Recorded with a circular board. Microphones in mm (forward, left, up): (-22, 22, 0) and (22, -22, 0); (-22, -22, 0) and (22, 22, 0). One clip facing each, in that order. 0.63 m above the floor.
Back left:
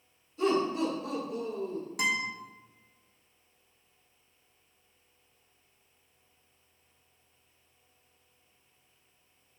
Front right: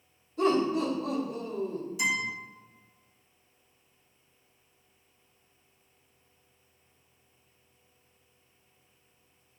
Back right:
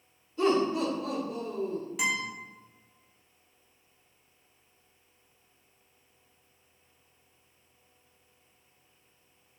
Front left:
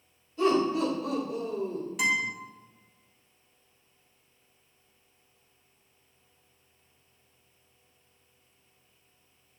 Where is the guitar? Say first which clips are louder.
Even, front left 4 dB; 135° left, 1.0 m.